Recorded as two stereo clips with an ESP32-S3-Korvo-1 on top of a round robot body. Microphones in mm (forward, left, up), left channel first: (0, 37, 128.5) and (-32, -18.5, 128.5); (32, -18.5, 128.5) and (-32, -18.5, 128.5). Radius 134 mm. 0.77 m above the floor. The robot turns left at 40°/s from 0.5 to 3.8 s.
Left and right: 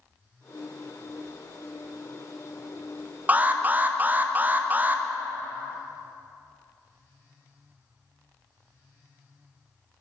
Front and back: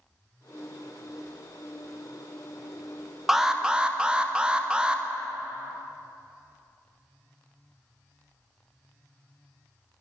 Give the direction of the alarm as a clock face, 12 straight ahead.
3 o'clock.